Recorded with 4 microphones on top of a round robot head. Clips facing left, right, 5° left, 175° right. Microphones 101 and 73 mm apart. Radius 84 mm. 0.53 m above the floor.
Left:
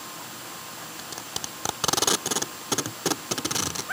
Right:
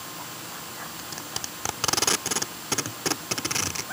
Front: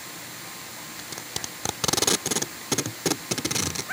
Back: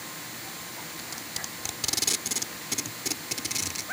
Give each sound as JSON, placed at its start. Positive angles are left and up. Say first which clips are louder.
{"t": 1.0, "sound": "tape being pulled", "louder": "even, front 2 dB", "azimuth_deg": 20}